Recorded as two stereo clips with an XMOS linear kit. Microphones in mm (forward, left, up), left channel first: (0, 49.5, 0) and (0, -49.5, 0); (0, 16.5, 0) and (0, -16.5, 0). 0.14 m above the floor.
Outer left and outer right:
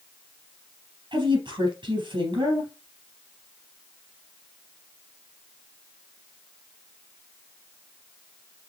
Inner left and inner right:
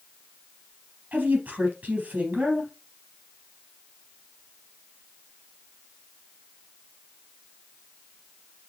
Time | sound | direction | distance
1.1 | a woman speaking | 55° right (ahead or behind) | 3.5 m